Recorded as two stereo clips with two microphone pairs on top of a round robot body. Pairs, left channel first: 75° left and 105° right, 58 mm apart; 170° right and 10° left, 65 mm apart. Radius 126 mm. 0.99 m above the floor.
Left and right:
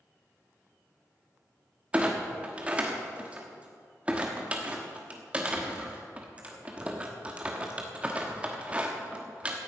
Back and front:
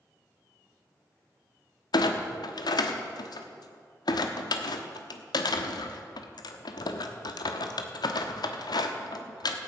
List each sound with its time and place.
1.9 s a clunk: straight behind, 1.1 m